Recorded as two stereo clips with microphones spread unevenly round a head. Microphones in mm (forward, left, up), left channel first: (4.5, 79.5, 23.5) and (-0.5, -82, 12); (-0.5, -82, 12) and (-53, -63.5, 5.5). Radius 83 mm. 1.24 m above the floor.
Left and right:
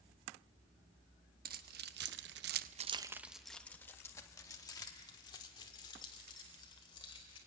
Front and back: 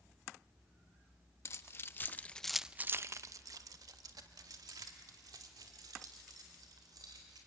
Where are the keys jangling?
55° right, 1.1 m; by 7.4 s 150° left, 4 m.